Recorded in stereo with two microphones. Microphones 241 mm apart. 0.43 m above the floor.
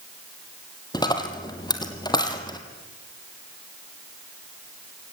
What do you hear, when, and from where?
0.9 s a dropped coin: 15° left (ahead or behind), 2 m